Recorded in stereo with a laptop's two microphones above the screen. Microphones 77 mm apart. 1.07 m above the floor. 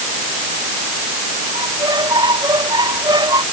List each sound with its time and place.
1.6 s a squeak: 75° right (ahead or behind)